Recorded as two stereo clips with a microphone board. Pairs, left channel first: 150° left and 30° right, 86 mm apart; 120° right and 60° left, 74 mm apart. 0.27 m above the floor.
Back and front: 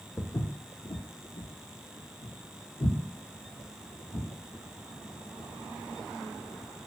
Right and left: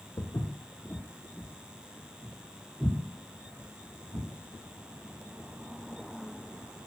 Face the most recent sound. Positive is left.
turn(degrees=115)